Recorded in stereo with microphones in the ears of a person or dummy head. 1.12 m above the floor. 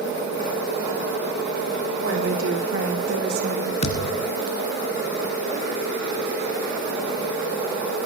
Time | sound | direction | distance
2.0 | a woman speaking | 80° right | 4.5 m
3.8 | a thud | 35° left (ahead or behind) | 2.5 m